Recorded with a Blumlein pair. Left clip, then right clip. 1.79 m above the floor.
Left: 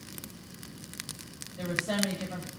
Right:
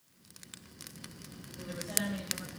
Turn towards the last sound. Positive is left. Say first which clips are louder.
# left 7 dB
turn(degrees=40)